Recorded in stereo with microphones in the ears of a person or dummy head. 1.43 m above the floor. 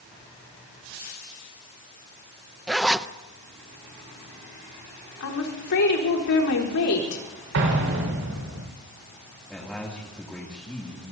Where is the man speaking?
5° left (ahead or behind), 2.5 m.